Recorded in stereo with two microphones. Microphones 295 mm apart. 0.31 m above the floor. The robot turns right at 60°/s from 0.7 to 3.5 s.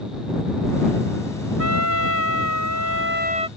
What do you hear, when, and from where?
1.6 s a trumpet: 130° right; by 3.5 s 15° right